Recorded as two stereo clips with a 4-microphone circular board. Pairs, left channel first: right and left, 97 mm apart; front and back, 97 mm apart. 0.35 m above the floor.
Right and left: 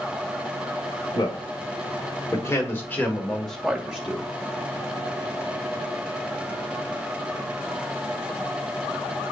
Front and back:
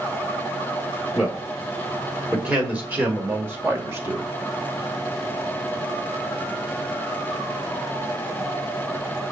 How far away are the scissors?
I don't hear scissors.